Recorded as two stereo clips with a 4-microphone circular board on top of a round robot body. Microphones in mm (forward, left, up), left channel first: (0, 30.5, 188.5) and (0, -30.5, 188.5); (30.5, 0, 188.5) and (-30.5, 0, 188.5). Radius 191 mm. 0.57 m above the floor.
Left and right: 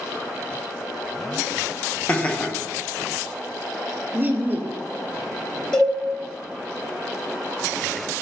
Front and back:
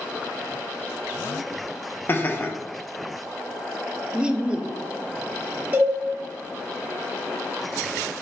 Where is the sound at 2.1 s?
35° left, 0.9 m.